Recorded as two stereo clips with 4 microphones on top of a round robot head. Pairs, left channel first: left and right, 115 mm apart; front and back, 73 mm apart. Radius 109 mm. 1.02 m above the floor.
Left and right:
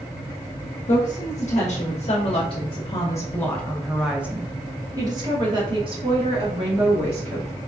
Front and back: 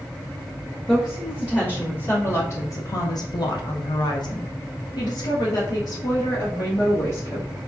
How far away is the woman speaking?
About 1.6 m.